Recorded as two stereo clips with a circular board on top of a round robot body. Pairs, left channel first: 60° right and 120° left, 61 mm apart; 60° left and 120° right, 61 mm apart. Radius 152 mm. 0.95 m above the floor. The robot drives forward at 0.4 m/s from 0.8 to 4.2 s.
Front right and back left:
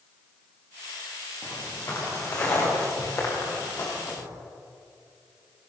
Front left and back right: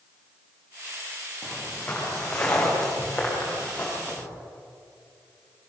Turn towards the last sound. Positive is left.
turn(degrees=-10)